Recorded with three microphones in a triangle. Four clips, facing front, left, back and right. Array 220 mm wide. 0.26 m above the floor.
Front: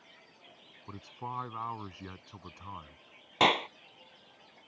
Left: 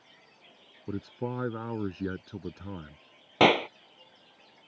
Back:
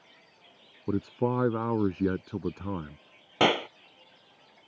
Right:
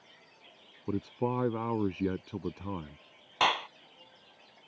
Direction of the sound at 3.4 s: 110° left.